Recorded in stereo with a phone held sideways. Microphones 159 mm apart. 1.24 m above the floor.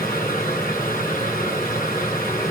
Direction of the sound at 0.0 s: 60° left (ahead or behind).